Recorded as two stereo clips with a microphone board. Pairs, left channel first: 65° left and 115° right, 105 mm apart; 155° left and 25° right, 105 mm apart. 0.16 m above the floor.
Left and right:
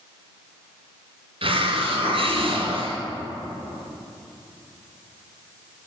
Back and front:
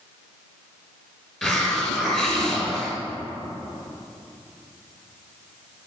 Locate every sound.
1.4 s a hiss: 110° right, 1.9 m